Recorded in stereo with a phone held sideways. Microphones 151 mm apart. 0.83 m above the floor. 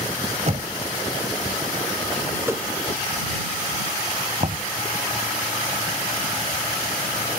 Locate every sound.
0.5 s knocking: 50° right (ahead or behind)
2.4 s a whoosh: 15° right (ahead or behind)
4.4 s knocking: 50° right (ahead or behind)